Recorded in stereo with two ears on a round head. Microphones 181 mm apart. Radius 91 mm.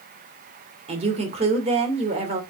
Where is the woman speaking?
35° right (ahead or behind), 2.5 m.